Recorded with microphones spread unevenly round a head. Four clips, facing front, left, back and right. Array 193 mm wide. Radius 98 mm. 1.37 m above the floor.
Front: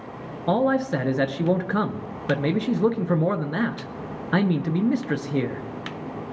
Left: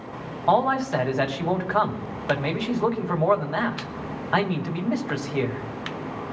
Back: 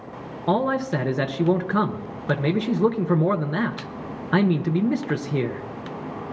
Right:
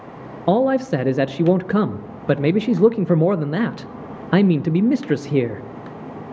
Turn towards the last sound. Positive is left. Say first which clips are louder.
# right 4 dB, front 1 dB
turn(degrees=-90)